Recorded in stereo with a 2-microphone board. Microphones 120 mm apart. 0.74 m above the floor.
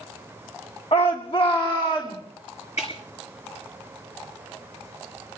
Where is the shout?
55° left (ahead or behind), 1.0 m; by 2.2 s 45° left (ahead or behind), 1.9 m.